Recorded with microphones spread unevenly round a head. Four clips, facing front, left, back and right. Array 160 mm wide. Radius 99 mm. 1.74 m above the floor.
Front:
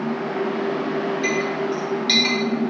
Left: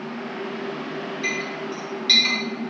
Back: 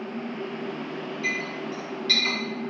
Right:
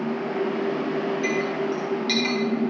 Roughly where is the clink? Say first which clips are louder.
Right 5 dB, front 9 dB; ahead right.